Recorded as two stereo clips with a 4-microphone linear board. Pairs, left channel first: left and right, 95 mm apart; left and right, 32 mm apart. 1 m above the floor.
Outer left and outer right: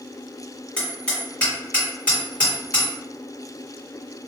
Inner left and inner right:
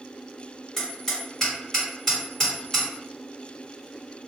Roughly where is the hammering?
Centre.